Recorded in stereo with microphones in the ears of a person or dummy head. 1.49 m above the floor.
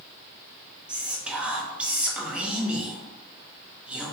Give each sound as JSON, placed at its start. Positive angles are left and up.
{"t": 0.9, "sound": "whispering", "side_deg": -5, "distance_m": 0.8}